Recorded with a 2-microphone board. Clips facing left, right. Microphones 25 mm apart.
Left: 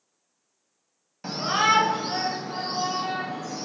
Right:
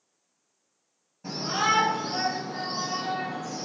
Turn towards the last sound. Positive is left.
turn(degrees=40)  # may be behind; listen again after turning